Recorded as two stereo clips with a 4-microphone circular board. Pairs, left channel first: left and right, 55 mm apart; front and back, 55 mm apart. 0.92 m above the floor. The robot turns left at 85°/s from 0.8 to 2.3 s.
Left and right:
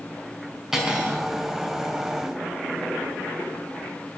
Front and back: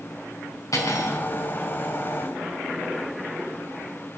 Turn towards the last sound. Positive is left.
turn(degrees=-135)